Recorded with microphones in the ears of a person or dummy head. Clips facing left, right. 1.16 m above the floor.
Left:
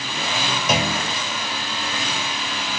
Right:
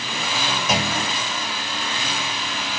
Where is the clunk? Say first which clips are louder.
Left 2 dB; 80° left, 2.5 m.